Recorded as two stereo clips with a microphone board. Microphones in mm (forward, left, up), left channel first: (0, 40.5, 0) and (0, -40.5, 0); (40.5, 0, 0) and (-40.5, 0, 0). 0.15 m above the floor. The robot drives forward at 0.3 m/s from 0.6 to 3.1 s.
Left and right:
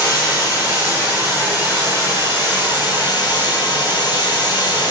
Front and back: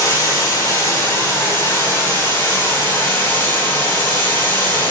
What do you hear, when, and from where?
0.0 s running water: 55° left, 4.5 m; by 4.9 s 65° left, 4 m